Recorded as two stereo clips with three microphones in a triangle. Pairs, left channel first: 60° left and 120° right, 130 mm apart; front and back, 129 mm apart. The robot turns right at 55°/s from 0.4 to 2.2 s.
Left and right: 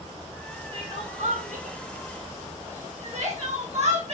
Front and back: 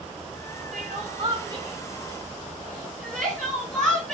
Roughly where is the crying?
Behind.